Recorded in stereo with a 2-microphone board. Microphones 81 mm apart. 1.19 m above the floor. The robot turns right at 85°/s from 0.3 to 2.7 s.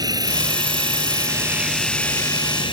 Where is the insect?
130° right; by 2.7 s 75° left.